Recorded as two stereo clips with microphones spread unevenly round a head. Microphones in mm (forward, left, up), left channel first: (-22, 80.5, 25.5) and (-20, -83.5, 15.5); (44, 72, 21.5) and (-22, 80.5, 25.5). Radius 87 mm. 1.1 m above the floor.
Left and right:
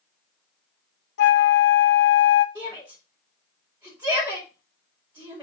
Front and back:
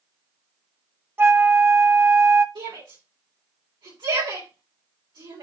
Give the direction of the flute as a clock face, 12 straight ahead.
8 o'clock.